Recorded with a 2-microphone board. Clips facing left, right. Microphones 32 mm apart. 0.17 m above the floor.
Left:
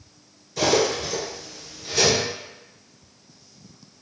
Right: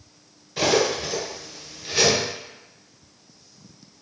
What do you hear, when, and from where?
0.6 s cutlery clinking: 30° right (ahead or behind), 1.4 m